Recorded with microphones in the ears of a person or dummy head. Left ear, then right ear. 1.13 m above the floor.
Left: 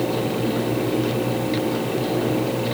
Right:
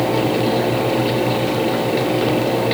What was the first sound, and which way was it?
Only background noise.